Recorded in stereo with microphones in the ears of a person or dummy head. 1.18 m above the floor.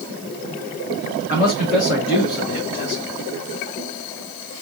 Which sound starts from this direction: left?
A man speaking, at 1.3 s.